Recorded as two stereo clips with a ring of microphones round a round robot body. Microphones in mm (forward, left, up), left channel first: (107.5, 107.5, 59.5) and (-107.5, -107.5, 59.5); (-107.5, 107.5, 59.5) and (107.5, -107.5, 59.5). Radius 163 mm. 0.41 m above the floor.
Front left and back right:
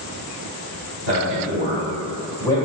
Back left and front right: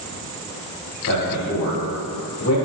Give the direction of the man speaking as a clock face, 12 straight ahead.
6 o'clock.